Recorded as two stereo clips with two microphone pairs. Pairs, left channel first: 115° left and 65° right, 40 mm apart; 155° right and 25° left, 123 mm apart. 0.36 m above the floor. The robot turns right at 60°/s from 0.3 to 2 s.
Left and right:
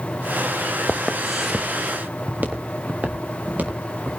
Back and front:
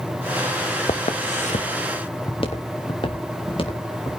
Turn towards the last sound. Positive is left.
turn(degrees=-110)